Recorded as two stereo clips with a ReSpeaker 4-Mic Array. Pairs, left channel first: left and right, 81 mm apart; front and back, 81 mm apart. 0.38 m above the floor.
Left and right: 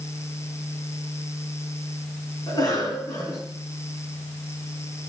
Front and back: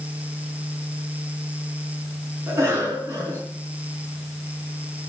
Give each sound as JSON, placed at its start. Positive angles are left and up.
{"t": 2.5, "sound": "a cough", "azimuth_deg": 125, "distance_m": 4.0}